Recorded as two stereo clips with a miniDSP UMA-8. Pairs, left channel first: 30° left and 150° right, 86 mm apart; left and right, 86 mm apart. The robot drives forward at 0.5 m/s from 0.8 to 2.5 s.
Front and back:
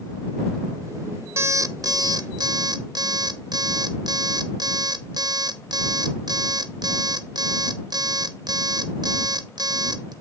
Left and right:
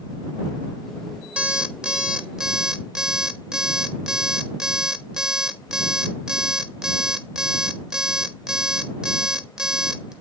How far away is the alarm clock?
About 0.7 m.